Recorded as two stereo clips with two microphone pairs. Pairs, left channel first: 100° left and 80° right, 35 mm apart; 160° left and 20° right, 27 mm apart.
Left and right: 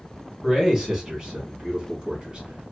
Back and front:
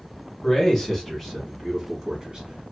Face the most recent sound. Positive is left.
turn(degrees=-50)